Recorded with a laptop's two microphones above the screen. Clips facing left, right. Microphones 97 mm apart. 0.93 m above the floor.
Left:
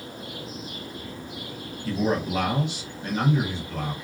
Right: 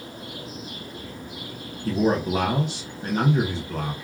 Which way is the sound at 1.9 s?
40° right (ahead or behind).